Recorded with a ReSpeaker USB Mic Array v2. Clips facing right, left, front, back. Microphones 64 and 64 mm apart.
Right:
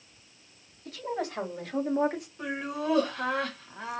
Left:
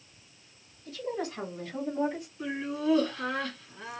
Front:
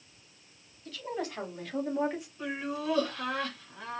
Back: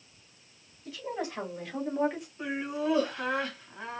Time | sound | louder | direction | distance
0.8 | a woman speaking | right 1 dB, back 1 dB | 100° right | 2.5 m
2.4 | laughter | left 1 dB, back 3 dB | 110° right | 1.7 m